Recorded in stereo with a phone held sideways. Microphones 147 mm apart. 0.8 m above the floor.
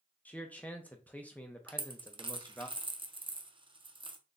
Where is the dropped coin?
35° right (ahead or behind), 0.5 m.